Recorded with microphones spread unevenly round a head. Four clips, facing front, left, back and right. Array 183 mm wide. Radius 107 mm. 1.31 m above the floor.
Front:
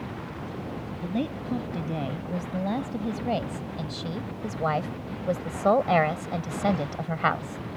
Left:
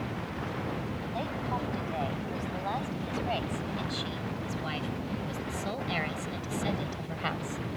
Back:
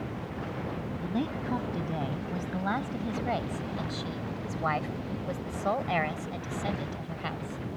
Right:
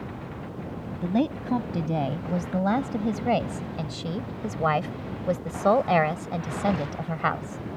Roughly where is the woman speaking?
Right.